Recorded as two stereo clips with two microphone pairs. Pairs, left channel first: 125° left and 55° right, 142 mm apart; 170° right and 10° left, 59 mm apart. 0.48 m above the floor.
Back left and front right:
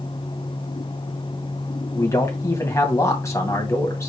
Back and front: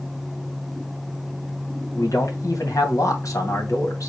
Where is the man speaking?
170° right, 2.5 m.